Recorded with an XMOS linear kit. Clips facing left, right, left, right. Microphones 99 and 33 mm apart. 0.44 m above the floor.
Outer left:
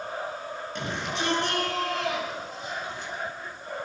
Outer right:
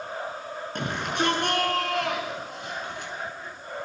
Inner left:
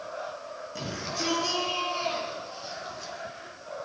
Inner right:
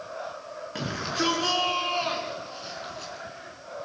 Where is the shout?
55° right (ahead or behind), 7 m; by 3.1 s 65° right (ahead or behind), 6.5 m.